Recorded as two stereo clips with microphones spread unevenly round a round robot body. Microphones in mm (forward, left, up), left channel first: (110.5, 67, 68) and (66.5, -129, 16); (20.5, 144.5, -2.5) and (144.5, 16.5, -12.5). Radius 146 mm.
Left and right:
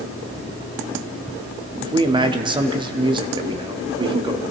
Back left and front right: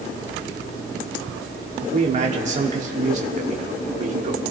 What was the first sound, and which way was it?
A man speaking, 65° right.